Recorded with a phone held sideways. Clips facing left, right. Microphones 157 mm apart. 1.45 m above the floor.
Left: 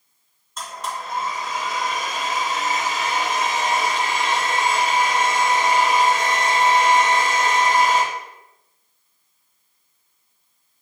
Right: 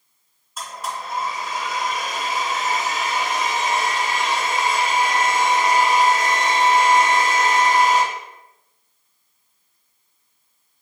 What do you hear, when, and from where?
0.6 s a blender: 5° right (ahead or behind), 1.6 m